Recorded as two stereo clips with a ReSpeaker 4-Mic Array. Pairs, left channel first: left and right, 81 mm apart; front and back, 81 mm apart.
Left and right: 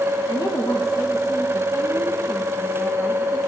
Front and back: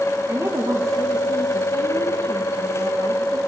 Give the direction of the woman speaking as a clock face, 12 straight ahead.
8 o'clock.